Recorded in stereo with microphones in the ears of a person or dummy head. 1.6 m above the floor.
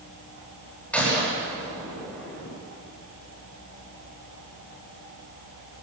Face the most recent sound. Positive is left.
turn(degrees=5)  # may be behind; listen again after turning